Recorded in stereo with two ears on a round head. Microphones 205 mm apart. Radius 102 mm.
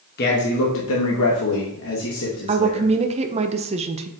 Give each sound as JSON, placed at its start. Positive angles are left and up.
{"t": 0.2, "sound": "a man speaking", "side_deg": 45, "distance_m": 1.1}
{"t": 2.5, "sound": "a woman speaking", "side_deg": -30, "distance_m": 0.5}